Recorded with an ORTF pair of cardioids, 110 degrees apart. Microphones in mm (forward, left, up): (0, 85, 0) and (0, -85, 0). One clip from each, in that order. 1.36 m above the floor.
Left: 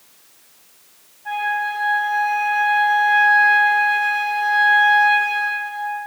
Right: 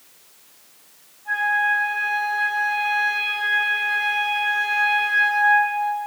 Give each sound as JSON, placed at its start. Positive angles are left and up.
{"t": 1.2, "sound": "a flute", "azimuth_deg": 50, "distance_m": 1.7}